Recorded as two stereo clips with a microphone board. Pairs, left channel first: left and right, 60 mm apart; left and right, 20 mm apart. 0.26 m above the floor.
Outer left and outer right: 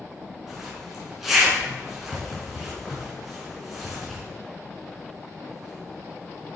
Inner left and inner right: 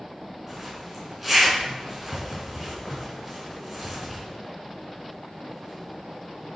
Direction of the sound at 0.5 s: 5° right (ahead or behind).